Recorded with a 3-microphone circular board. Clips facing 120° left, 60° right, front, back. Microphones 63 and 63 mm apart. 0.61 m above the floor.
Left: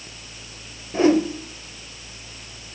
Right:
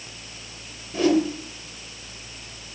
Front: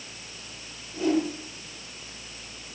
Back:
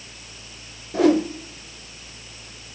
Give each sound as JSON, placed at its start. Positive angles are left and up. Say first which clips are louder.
{"t": 0.9, "sound": "a whoosh", "louder": "left 3 dB, back 7 dB", "azimuth_deg": 180, "distance_m": 1.0}